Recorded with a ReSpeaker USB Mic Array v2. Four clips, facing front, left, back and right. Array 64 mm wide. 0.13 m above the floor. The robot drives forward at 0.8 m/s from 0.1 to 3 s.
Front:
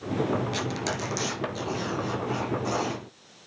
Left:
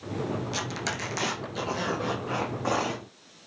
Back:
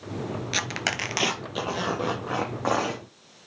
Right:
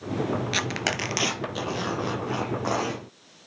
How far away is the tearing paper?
About 0.6 m.